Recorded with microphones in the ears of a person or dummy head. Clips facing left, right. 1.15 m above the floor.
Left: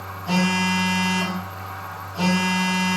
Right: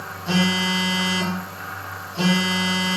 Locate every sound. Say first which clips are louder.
0.3 s a phone buzzing: even; 15° right (ahead or behind), 0.7 m